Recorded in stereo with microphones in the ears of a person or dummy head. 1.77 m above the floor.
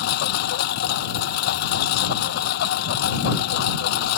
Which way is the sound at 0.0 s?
70° left (ahead or behind).